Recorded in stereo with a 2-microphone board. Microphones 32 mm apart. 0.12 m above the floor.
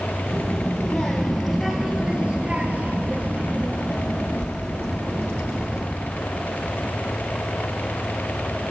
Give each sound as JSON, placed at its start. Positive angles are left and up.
{"t": 0.3, "sound": "a child speaking", "side_deg": 25, "distance_m": 2.5}